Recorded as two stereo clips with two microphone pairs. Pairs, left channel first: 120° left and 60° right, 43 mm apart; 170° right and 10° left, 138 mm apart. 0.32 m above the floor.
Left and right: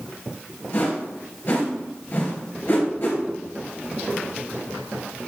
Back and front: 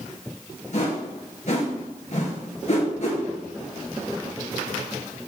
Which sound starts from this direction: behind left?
A whoosh, at 0.7 s.